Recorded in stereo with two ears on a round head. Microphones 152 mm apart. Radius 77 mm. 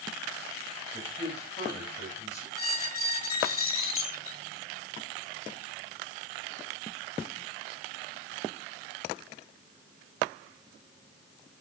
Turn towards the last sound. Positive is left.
turn(degrees=40)  # may be behind; listen again after turning